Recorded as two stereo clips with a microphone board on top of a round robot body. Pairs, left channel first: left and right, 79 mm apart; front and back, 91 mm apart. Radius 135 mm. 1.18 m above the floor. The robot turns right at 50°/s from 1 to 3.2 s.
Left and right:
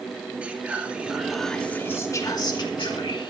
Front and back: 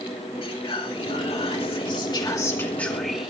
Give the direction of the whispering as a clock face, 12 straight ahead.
1 o'clock.